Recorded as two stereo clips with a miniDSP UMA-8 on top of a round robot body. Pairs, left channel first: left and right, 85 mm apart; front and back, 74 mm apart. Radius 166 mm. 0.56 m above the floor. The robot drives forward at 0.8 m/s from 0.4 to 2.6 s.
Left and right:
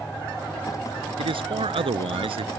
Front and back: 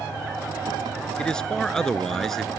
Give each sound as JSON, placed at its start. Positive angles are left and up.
{"t": 1.2, "sound": "a man speaking", "azimuth_deg": -80}